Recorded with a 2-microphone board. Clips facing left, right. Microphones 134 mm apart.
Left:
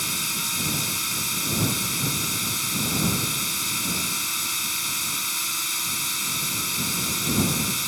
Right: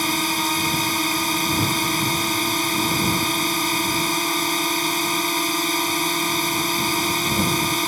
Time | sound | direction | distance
0.0 | a drone | 65° right (ahead or behind) | ?